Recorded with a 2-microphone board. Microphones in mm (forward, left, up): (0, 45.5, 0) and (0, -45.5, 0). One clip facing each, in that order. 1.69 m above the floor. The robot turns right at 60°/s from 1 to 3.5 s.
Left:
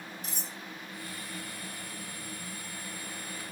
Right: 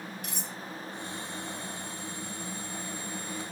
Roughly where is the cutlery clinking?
Right.